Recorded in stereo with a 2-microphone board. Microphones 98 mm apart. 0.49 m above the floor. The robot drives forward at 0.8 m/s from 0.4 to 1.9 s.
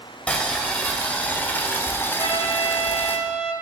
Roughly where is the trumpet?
Left.